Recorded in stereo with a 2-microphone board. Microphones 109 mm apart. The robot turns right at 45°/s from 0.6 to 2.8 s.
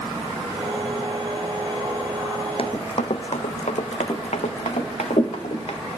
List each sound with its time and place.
2.6 s running footsteps: 55° left (ahead or behind), 0.7 m; by 5.8 s 65° left (ahead or behind), 2 m